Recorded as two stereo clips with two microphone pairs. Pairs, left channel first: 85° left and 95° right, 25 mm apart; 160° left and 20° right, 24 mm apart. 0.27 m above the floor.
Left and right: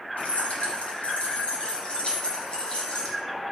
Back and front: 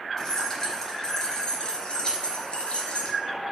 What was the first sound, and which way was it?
Keys jangling, 95° left.